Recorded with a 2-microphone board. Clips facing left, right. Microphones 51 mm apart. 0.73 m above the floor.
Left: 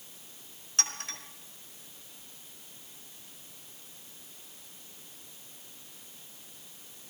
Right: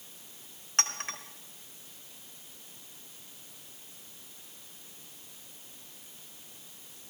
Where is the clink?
40° right (ahead or behind), 1.8 m.